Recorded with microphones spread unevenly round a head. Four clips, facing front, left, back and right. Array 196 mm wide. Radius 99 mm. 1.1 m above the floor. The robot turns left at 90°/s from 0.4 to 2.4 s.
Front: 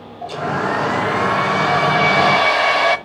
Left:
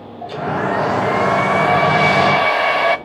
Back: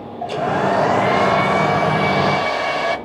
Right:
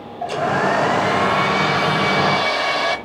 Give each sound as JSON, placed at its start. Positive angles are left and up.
{"t": 0.2, "sound": "a hair dryer", "azimuth_deg": -135, "distance_m": 0.9}